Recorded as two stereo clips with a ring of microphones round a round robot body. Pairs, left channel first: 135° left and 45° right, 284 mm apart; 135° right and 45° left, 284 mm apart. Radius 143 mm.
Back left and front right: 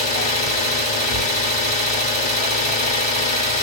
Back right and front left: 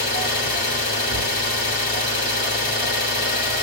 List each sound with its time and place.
0.0 s an engine running: 175° right, 1.5 m